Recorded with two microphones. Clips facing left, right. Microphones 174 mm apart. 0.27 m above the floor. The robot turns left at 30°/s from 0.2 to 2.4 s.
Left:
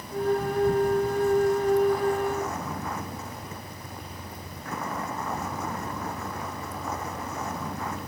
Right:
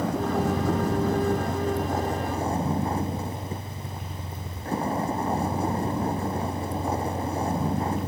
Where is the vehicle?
85° right; by 8.1 s 150° right.